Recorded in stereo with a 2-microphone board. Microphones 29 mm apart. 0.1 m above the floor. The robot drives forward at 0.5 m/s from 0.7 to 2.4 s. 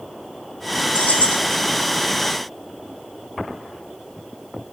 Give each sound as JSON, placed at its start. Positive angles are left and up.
{"t": 0.9, "sound": "keys jangling", "side_deg": 70, "distance_m": 4.0}